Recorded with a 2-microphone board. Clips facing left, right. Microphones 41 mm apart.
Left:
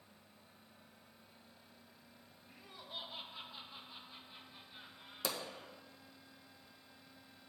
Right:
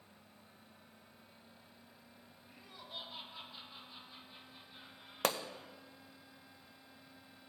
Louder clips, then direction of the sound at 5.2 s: Right 6 dB; 55° right (ahead or behind).